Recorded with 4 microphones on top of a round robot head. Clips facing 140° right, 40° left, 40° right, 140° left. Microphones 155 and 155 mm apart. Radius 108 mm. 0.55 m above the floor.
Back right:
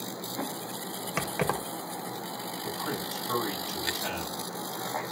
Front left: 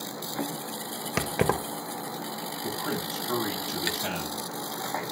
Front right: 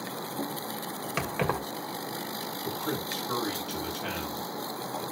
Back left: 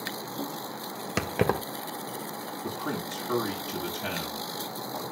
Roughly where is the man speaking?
Left.